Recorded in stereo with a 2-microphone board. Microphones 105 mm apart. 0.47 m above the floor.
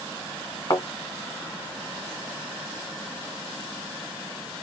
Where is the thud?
35° left (ahead or behind), 2 m.